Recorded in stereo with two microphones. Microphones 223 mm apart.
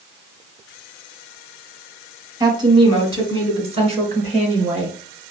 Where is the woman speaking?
20° right (ahead or behind), 1.6 m; by 5.0 s 30° right (ahead or behind), 3 m.